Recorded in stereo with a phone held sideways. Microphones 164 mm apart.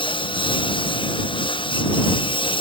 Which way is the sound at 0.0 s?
30° left (ahead or behind).